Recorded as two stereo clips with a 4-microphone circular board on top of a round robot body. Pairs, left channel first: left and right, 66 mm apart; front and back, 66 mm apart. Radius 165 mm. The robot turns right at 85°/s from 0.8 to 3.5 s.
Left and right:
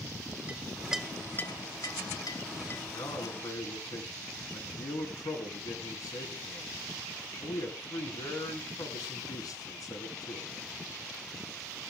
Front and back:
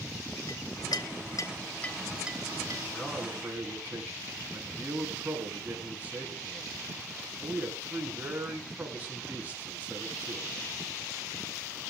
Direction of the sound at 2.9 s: 65° left.